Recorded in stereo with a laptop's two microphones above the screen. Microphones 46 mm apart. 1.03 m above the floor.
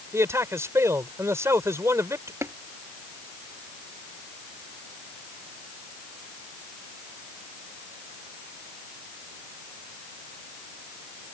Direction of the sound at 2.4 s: 85° right.